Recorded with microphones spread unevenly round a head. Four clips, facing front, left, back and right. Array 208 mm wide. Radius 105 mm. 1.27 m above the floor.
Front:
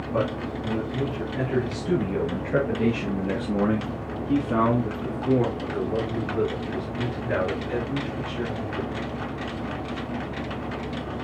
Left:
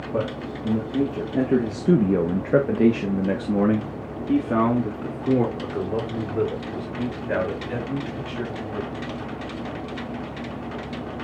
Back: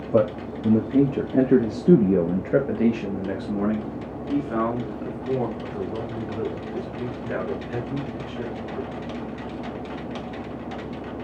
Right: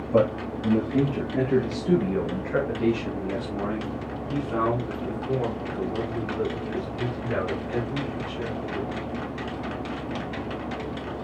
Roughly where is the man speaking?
Behind.